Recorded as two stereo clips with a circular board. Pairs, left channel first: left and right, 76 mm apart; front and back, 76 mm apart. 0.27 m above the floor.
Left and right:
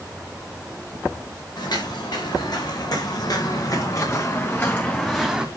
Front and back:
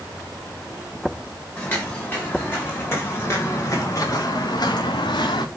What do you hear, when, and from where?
1.6 s footsteps: 70° left, 6 m; by 5.5 s 10° right, 2 m